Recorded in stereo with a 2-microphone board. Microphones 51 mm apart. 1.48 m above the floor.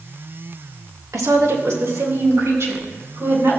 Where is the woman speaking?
75° right (ahead or behind), 1.6 m; by 3.6 s 60° right (ahead or behind), 5 m.